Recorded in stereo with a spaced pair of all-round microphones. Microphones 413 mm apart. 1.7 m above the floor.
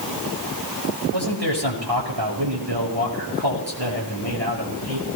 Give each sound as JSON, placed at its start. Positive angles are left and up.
{"t": 1.1, "sound": "a man speaking", "side_deg": -70, "distance_m": 7.0}